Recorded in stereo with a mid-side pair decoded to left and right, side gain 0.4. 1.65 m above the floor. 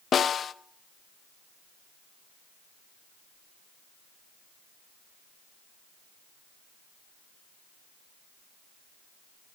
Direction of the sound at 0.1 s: 55° left.